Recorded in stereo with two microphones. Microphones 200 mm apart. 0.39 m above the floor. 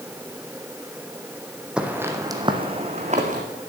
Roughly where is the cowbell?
I don't hear a cowbell.